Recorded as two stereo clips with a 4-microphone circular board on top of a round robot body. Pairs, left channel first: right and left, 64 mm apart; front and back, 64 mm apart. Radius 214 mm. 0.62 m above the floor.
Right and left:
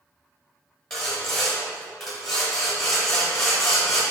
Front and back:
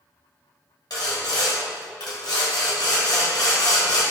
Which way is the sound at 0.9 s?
5° right.